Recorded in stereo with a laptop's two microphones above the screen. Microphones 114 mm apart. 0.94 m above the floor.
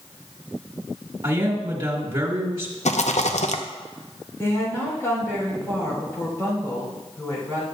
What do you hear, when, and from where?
1.2 s a man speaking: 45° right (ahead or behind), 1.5 m
2.9 s a rattle: 75° left (ahead or behind), 0.6 m
4.4 s a woman speaking: 20° left (ahead or behind), 3.5 m